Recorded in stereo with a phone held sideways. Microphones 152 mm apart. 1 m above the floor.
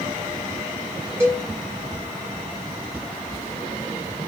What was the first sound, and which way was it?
A cowbell, 15° right (ahead or behind).